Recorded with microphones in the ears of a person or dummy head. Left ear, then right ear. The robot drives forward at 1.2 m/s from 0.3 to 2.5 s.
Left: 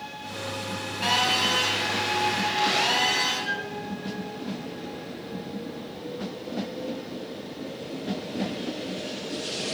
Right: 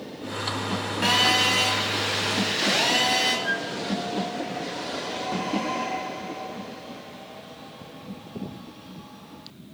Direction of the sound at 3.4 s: 10° right (ahead or behind).